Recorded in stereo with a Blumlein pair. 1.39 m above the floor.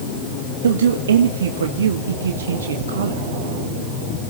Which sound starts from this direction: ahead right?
A man speaking, at 0.6 s.